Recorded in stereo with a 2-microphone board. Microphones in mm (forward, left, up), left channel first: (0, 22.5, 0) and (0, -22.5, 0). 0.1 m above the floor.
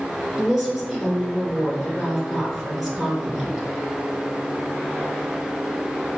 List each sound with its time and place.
0.4 s a woman speaking: 5° right (ahead or behind), 1.4 m